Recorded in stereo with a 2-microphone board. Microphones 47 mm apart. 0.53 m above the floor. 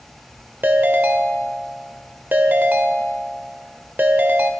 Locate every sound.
0.6 s a ringtone: 40° right (ahead or behind), 1.2 m